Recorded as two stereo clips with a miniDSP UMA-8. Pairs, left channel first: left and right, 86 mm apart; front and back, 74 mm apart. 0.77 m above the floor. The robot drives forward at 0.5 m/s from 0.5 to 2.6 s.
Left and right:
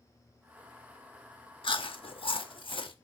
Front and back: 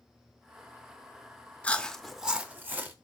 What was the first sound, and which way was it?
Chewing, 70° left.